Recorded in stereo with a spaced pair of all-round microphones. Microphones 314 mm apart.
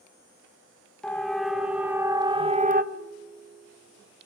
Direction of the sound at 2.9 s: 30° right (ahead or behind).